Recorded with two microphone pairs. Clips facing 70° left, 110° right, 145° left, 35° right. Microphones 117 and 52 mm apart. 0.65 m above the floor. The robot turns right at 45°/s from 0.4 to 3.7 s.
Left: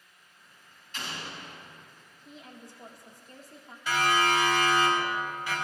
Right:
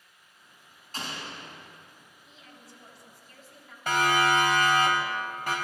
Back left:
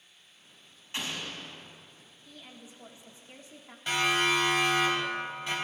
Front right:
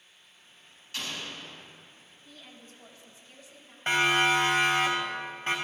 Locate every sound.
0.9 s an explosion: 150° right, 3 m; by 1.7 s 120° right, 3 m
2.2 s a woman speaking: 50° left, 1.6 m; by 3.8 s 115° left, 1.6 m
3.9 s a siren: 80° right, 3 m; by 5.5 s 75° right, 4 m